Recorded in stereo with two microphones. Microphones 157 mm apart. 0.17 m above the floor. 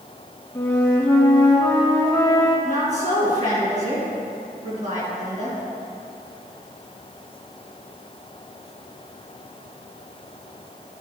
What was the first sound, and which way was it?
A flute, 10° left (ahead or behind).